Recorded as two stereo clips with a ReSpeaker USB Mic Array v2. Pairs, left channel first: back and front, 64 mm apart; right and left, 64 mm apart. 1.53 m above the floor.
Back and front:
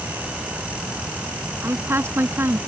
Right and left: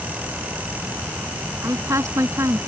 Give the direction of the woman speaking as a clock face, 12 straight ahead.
10 o'clock.